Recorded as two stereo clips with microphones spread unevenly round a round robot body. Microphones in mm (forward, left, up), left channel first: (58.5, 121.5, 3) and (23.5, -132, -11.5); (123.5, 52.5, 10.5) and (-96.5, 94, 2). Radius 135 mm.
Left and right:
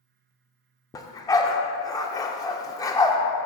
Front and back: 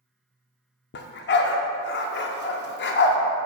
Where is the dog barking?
10° left, 0.5 m.